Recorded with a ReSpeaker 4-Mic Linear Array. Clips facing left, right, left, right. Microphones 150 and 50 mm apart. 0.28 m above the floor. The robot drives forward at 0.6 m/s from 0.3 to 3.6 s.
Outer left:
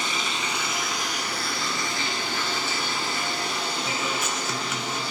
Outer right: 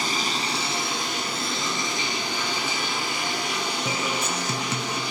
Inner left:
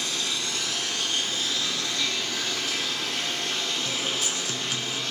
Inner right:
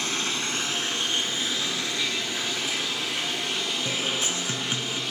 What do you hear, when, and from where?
0.0 s running water: 35° right (ahead or behind), 1.1 m; by 5.1 s 15° right (ahead or behind), 3 m
3.9 s a guitar: 30° right (ahead or behind), 0.6 m